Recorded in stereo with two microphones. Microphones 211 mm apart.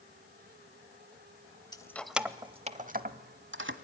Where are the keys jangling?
20° left (ahead or behind), 0.7 m; by 3.7 s 55° right (ahead or behind), 1.1 m.